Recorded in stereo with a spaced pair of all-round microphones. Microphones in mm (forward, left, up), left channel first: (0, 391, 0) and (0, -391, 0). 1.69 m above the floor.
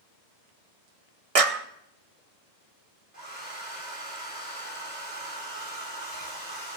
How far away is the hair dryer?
About 3.5 m.